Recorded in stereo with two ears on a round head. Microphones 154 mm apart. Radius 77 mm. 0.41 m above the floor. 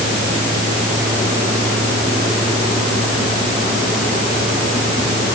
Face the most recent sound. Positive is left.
No sound to turn to.